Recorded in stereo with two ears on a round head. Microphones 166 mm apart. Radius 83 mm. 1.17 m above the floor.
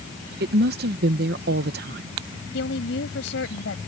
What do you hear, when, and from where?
0.4 s a woman speaking: 55° right (ahead or behind)
2.5 s a woman speaking: 70° left (ahead or behind)